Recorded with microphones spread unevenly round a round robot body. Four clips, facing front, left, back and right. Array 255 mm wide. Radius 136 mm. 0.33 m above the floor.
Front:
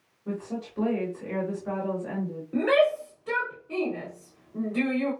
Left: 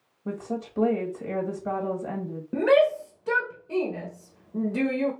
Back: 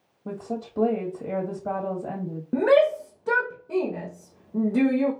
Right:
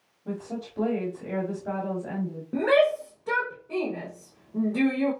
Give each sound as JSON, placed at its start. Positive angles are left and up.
{"t": 0.2, "sound": "a woman speaking", "azimuth_deg": 160, "distance_m": 1.8}
{"t": 2.5, "sound": "a shout", "azimuth_deg": 160, "distance_m": 1.2}